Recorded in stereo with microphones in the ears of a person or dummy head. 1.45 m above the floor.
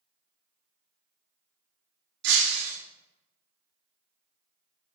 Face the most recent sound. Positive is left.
turn(degrees=-65)  # may be behind; listen again after turning